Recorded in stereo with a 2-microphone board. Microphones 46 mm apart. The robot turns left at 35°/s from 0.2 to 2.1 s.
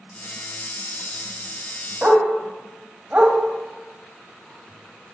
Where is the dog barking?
25° right (ahead or behind), 1.1 m; by 5.1 s 20° right (ahead or behind), 1.1 m.